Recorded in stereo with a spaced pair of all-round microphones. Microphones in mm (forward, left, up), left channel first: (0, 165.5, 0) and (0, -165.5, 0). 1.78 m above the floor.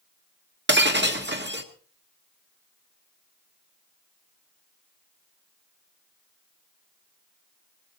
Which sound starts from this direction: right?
Breaking glass, at 0.7 s.